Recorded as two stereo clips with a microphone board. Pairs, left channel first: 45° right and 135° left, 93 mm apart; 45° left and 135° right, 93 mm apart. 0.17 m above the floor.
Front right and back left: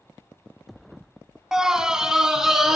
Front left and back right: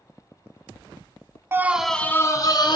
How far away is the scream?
About 1.1 m.